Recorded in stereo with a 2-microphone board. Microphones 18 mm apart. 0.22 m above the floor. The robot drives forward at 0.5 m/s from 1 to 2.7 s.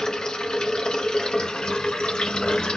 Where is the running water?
55° left (ahead or behind), 1.3 m; by 2.8 s 60° left (ahead or behind), 1.2 m.